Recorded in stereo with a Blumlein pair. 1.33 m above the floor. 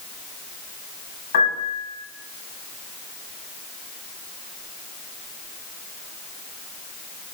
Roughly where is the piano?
Ahead left.